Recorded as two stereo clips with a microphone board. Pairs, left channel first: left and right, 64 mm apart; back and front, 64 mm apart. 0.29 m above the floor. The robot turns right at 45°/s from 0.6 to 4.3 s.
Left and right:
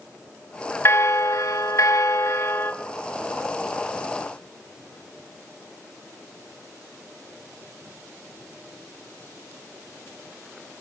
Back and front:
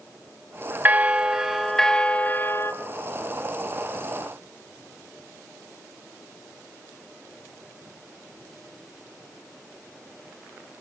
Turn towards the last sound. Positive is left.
turn(degrees=-150)